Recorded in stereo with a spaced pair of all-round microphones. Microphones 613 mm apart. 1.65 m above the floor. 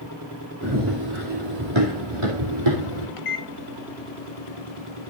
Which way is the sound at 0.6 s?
30° right (ahead or behind).